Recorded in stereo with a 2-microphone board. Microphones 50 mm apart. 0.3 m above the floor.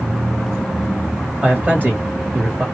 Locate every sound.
1.4 s a man speaking: 30° right (ahead or behind), 1.3 m